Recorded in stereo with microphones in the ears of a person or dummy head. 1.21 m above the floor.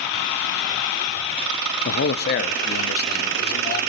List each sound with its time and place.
1.9 s a man speaking: 60° left (ahead or behind), 1.7 m; by 3.8 s 50° left (ahead or behind), 4 m